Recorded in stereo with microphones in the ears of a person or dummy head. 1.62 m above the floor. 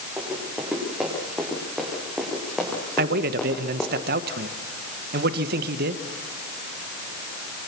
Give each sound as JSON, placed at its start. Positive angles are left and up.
{"t": 0.2, "sound": "running footsteps", "side_deg": -10, "distance_m": 8.5}
{"t": 3.0, "sound": "a man speaking", "side_deg": -55, "distance_m": 1.6}